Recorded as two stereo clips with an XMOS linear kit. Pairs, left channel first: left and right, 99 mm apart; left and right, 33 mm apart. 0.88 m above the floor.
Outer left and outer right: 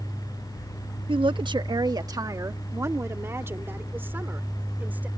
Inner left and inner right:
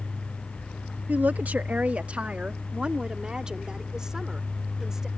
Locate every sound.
1.1 s a woman speaking: 60° right (ahead or behind); by 5.1 s 15° right (ahead or behind)